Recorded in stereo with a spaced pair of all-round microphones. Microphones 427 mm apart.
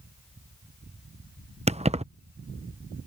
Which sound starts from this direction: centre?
Keys jangling, at 1.7 s.